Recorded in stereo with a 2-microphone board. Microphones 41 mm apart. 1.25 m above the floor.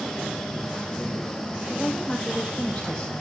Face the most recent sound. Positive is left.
turn(degrees=20)  # may be behind; listen again after turning